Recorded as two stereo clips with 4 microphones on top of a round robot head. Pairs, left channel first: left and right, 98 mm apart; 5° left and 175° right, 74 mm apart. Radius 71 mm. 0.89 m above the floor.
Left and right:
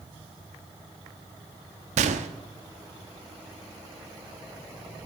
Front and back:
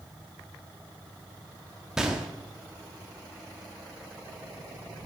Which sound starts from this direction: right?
A gunshot, at 2.0 s.